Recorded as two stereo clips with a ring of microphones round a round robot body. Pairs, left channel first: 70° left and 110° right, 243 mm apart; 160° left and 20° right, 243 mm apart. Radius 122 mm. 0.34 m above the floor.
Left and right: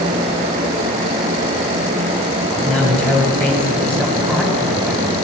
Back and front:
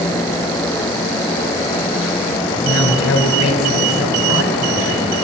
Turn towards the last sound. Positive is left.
turn(degrees=150)